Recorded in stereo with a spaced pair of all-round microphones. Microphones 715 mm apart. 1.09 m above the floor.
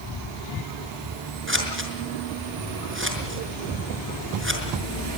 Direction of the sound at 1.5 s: 15° right (ahead or behind).